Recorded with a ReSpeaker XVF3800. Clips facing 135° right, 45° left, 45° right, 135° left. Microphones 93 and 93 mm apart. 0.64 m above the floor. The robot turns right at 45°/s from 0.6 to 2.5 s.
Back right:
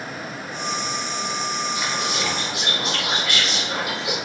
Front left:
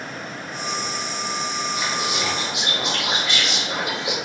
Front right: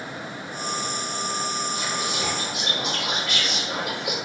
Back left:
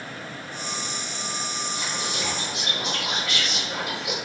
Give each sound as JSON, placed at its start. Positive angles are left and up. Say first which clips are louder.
{"t": 1.8, "sound": "whispering", "louder": "even, front right 3 dB", "azimuth_deg": -45, "distance_m": 1.0}